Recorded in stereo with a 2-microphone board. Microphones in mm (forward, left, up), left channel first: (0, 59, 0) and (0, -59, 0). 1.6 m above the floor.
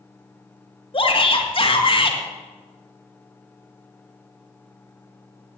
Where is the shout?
50° left (ahead or behind), 2 m.